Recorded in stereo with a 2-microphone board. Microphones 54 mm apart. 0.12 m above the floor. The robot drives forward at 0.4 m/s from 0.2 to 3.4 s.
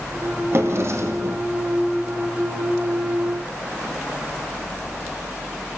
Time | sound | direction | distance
0.5 | a drawer | 55° right (ahead or behind) | 2.5 m